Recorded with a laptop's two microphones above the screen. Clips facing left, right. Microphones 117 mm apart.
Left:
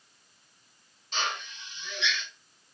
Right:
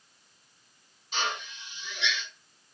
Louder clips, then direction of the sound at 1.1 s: Right 1 dB; 5° right (ahead or behind).